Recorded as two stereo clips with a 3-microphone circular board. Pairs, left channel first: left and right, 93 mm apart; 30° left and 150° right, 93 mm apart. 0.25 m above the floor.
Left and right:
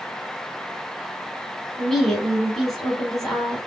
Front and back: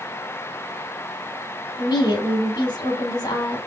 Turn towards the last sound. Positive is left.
turn(degrees=5)